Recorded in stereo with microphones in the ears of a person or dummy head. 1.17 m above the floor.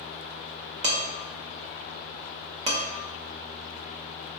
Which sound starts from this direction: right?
Dishes clattering, at 0.8 s.